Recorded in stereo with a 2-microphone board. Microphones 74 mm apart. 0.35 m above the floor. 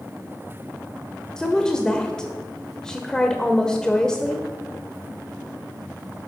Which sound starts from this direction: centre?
A woman speaking, at 1.4 s.